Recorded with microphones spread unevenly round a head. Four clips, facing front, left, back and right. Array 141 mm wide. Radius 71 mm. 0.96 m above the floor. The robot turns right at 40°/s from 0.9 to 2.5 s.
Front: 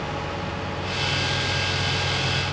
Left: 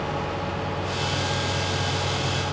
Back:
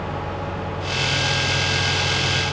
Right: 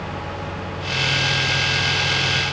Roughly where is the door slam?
No door slam in this recording.